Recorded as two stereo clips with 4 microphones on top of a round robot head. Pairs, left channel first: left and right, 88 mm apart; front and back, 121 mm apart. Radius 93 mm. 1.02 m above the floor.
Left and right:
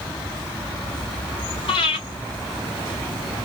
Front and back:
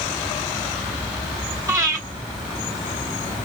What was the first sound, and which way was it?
Breathing, 115° left.